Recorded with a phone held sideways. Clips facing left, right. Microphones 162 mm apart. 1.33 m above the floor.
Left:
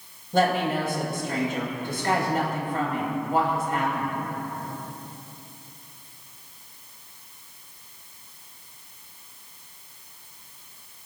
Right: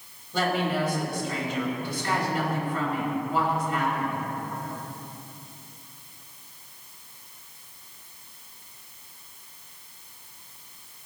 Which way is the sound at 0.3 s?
50° left (ahead or behind).